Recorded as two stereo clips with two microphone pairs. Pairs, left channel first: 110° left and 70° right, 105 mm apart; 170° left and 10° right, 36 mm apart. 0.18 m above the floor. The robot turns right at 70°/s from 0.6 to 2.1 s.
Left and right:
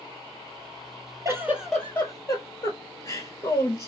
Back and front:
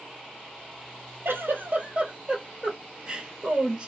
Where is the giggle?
10° right, 0.8 m; by 3.9 s 50° left, 0.8 m.